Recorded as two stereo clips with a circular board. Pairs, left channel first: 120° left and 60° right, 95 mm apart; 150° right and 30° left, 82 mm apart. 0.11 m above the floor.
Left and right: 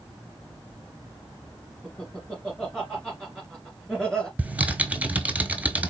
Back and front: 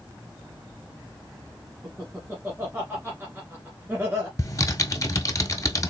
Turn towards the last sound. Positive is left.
turn(degrees=-130)